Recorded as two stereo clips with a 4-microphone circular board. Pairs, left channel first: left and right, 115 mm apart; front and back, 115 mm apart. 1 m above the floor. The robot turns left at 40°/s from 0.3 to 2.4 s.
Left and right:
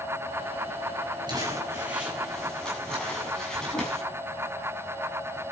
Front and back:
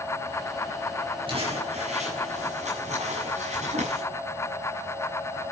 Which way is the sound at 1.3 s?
140° right.